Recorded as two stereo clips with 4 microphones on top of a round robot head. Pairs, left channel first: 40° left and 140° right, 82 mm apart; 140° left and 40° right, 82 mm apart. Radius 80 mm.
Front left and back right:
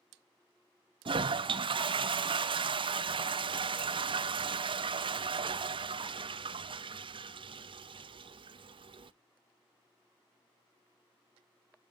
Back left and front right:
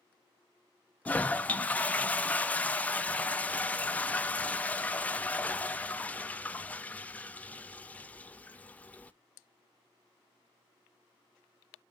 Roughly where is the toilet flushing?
Behind right.